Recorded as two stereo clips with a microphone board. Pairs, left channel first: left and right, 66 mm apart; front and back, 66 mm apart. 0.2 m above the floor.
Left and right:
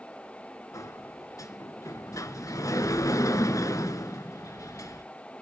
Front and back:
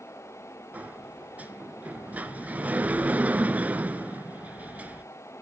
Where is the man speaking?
I don't hear a man speaking.